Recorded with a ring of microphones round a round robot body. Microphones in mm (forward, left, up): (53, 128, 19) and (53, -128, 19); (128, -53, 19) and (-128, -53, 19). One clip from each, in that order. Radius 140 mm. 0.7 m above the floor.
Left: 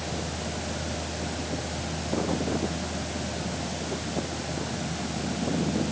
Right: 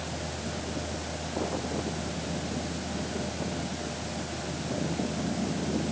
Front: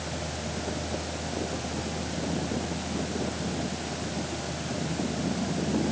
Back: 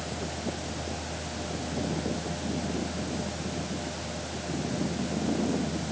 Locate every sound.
Only background noise.